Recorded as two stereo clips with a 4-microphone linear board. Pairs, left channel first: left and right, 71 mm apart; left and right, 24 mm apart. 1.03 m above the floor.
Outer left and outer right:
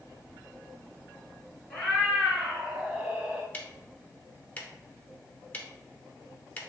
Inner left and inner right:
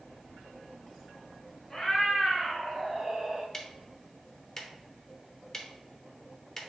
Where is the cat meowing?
10° left (ahead or behind), 1.6 m; by 3.4 s 25° right (ahead or behind), 1.9 m.